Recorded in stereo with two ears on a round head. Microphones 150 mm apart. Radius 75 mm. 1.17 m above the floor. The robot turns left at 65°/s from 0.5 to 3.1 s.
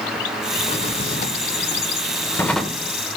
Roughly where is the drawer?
Behind left.